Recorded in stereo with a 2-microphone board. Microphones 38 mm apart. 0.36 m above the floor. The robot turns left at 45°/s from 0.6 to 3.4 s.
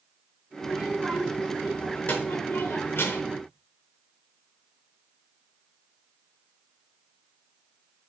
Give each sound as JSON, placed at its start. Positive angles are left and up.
{"t": 0.6, "sound": "a child speaking", "azimuth_deg": -170, "distance_m": 3.5}